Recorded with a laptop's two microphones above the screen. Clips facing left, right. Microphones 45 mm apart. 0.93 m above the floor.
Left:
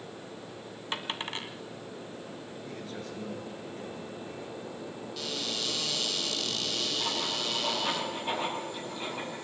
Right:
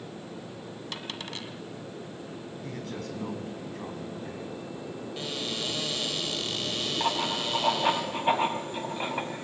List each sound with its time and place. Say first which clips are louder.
0.9 s a dropped coin: left 5 dB; 30° left (ahead or behind), 1.7 m
2.6 s a man speaking: right 4 dB; 75° right (ahead or behind), 7 m
5.2 s a cupboard door: right 1 dB; 30° right (ahead or behind), 5.5 m
7.0 s writing: right 4 dB; 40° right (ahead or behind), 5.5 m